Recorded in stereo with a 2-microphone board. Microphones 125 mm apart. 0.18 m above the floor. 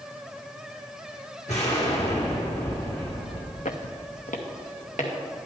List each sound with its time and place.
1.5 s an explosion: 60° left (ahead or behind), 3.5 m
3.6 s footsteps: 75° left (ahead or behind), 0.9 m